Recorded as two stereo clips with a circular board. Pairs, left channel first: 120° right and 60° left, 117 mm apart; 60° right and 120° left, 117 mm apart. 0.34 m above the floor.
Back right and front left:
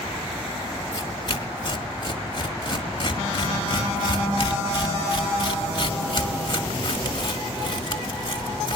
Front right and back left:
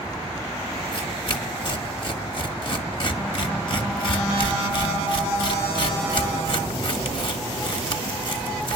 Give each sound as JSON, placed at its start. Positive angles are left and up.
{"t": 0.9, "sound": "tearing paper", "azimuth_deg": -85, "distance_m": 1.8}